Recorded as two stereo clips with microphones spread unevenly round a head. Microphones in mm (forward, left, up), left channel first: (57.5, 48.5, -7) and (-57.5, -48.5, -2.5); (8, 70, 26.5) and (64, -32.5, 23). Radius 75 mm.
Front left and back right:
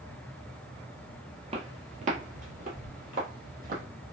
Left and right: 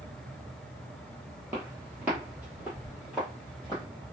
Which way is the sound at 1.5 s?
130° right.